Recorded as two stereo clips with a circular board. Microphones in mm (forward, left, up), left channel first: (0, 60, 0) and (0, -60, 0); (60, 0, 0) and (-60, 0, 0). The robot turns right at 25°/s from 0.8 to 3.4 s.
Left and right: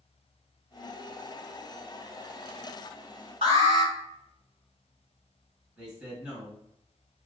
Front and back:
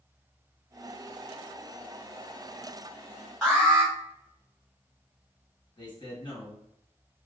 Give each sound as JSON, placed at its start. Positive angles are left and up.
{"t": 3.4, "sound": "an alarm", "azimuth_deg": -80, "distance_m": 2.0}
{"t": 5.8, "sound": "a man speaking", "azimuth_deg": -10, "distance_m": 1.9}